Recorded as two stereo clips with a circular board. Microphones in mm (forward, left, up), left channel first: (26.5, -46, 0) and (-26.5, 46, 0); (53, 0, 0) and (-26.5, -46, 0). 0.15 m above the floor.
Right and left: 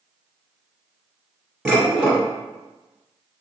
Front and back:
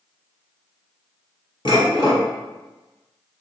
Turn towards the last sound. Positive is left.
turn(degrees=40)